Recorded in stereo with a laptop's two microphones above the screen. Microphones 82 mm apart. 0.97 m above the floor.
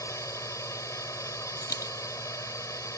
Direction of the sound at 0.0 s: 40° left (ahead or behind).